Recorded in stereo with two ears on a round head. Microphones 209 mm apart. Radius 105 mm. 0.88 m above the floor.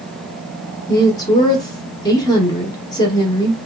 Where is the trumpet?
I don't hear a trumpet.